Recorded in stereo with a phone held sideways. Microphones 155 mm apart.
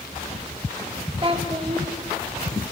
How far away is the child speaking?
About 2.5 m.